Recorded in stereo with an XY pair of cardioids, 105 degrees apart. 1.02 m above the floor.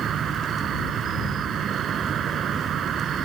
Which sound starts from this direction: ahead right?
An insect, at 0.0 s.